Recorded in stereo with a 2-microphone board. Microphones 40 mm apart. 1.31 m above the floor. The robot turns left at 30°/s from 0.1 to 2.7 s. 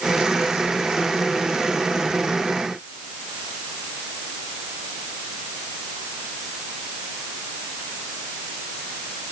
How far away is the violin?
No violin in this recording.